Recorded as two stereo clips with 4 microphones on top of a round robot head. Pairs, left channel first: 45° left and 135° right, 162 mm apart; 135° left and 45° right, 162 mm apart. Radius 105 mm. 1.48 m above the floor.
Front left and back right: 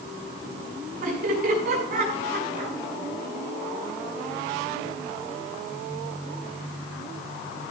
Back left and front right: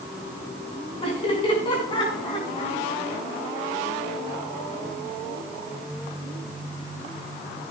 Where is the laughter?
165° right, 6.5 m; by 2.8 s 160° right, 7 m.